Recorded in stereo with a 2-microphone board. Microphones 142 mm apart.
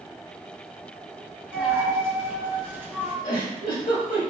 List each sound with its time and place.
1.5 s a dropped coin: 15° right (ahead or behind), 1.2 m
3.2 s a giggle: 80° left, 1.8 m